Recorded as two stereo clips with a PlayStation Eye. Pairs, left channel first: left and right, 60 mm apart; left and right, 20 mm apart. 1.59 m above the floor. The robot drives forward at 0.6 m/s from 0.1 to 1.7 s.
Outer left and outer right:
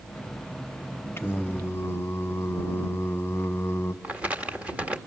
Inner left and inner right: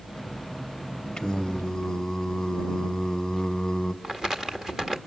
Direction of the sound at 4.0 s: 20° right (ahead or behind).